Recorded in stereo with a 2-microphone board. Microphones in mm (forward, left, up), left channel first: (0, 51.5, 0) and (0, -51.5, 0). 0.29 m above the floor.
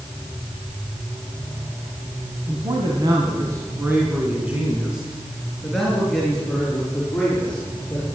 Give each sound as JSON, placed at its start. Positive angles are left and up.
{"t": 2.5, "sound": "a man speaking", "side_deg": -55, "distance_m": 2.5}